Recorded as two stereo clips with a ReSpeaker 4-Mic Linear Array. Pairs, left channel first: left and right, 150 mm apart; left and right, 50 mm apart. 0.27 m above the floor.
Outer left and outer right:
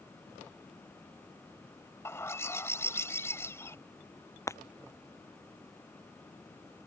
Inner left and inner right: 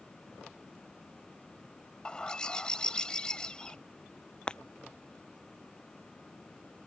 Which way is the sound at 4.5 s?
20° left (ahead or behind).